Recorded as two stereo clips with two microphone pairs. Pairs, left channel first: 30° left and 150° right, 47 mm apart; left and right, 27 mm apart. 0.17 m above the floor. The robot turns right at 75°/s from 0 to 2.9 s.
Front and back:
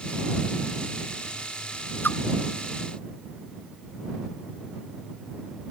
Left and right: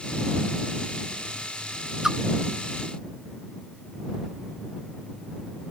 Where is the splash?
15° right; by 2.2 s 5° right.